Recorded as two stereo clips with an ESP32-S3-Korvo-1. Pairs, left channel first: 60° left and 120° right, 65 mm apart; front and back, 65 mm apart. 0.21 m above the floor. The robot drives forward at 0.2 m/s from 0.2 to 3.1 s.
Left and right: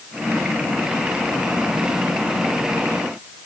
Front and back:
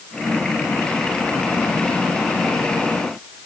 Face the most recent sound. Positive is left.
No sound to turn to.